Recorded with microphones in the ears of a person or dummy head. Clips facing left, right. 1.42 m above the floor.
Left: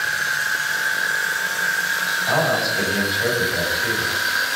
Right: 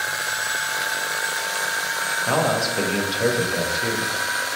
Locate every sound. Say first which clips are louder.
0.0 s an insect: even; 25° left (ahead or behind), 0.7 m
2.3 s a man speaking: even; 45° right (ahead or behind), 0.9 m